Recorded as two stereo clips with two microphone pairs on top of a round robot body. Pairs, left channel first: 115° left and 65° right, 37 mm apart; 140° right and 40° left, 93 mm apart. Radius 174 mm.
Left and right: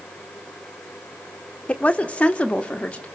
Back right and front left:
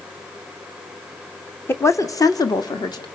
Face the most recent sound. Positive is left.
turn(degrees=180)